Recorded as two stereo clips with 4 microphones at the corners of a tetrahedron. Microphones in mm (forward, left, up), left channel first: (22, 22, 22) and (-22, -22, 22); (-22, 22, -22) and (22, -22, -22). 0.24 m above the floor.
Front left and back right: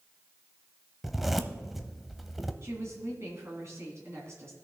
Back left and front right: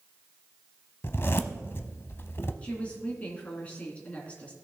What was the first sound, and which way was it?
A zipper, 140° left.